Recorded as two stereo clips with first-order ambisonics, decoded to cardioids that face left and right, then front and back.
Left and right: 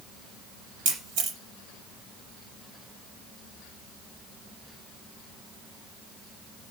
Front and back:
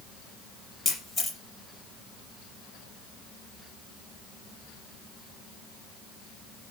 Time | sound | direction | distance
0.8 | a camera shutter | 75° right | 4 m